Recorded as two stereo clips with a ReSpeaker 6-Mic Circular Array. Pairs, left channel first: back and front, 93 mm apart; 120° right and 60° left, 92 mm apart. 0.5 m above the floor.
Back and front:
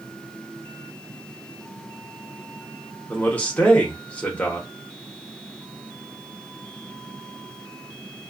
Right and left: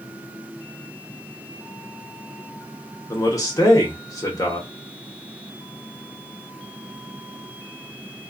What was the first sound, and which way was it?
A man speaking, 115° right.